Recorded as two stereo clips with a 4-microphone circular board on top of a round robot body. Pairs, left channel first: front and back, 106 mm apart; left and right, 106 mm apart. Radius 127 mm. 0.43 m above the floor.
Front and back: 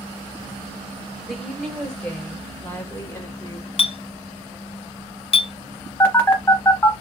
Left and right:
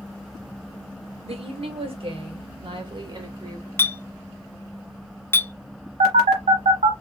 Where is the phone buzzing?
70° right, 1.1 m.